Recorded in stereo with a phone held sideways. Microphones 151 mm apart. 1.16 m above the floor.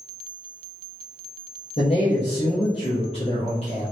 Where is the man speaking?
40° left (ahead or behind), 0.7 m.